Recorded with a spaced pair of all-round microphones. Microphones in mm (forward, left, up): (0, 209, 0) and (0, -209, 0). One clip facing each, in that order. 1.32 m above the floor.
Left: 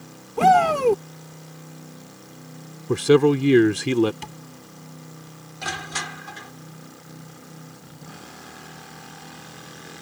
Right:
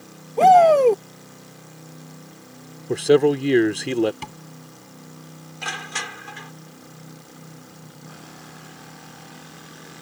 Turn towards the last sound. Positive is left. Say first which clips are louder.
# left 2 dB
turn(degrees=55)  # may be behind; listen again after turning